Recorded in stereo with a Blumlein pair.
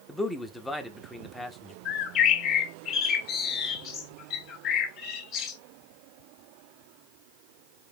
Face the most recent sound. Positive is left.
turn(degrees=35)